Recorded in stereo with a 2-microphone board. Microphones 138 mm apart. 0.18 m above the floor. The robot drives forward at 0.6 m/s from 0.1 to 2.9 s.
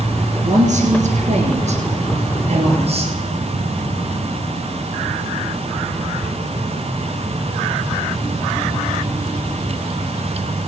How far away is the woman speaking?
About 3 m.